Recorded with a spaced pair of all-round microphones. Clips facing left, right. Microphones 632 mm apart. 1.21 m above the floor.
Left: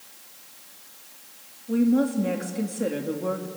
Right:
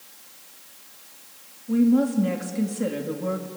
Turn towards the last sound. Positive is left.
turn(degrees=-25)  # may be behind; listen again after turning